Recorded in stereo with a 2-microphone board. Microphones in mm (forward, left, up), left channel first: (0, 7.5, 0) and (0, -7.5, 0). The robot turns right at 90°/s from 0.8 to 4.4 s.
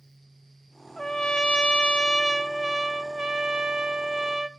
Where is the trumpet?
30° left, 0.5 m; by 4.5 s 20° right, 0.5 m.